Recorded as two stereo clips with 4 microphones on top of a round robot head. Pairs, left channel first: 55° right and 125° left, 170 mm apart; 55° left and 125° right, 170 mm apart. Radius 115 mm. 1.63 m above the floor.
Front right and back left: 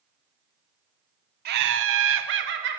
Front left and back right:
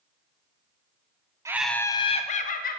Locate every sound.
1.4 s laughter: 160° left, 0.6 m; by 2.8 s 95° left, 1.3 m